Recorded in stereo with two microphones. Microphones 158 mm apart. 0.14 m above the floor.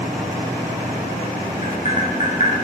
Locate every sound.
1.6 s tapping: 45° left (ahead or behind), 7.5 m